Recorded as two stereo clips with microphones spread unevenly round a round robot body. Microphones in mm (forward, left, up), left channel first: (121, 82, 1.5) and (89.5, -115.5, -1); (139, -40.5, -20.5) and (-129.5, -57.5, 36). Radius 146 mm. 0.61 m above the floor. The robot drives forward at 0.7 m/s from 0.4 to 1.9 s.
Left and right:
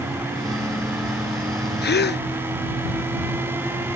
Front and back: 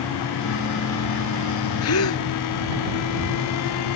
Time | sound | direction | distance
1.8 | a gasp | 45° left | ?